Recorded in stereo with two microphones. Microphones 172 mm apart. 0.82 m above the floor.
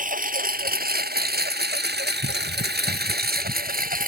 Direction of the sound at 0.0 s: 55° right (ahead or behind).